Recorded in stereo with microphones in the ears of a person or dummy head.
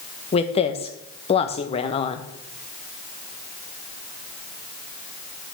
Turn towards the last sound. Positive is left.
turn(degrees=30)  # may be behind; listen again after turning